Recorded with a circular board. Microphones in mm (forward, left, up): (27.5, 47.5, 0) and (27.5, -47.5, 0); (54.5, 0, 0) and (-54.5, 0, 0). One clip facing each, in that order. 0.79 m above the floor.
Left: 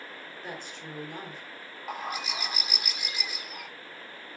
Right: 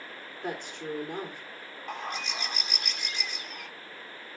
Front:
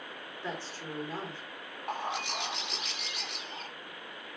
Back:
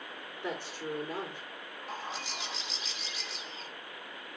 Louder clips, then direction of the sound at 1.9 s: Left 1 dB, front 6 dB; 5° left.